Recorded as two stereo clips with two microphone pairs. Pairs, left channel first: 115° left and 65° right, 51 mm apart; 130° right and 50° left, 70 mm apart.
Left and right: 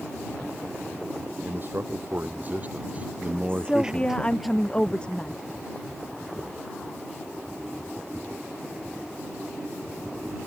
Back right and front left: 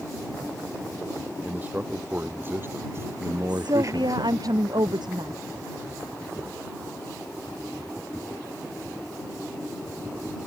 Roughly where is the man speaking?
Ahead.